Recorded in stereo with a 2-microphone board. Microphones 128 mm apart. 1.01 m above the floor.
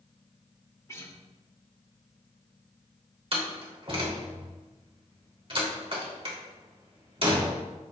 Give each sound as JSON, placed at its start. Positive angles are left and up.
{"t": 0.9, "sound": "a guitar", "side_deg": 25, "distance_m": 2.0}
{"t": 3.3, "sound": "a door slam", "side_deg": -45, "distance_m": 2.5}